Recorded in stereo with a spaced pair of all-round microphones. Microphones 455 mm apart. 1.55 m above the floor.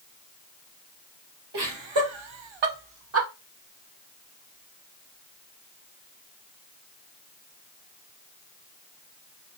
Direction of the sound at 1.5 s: 60° right (ahead or behind).